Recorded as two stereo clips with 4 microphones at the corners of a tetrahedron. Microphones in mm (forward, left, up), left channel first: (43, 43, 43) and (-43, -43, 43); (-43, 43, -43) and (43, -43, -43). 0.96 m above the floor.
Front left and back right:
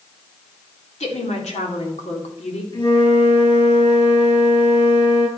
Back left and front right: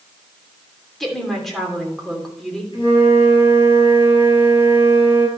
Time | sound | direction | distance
1.0 | a woman speaking | 45° left | 3 m
2.7 | a flute | 90° left | 7.5 m